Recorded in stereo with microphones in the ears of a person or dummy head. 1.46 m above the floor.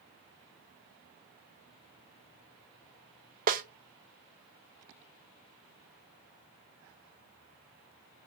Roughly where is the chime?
I don't hear a chime.